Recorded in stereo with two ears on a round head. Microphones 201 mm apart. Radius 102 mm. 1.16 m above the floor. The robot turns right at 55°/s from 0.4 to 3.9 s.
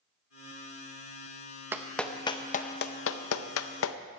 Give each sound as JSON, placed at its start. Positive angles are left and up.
{"t": 1.7, "sound": "a clap", "side_deg": -10, "distance_m": 0.6}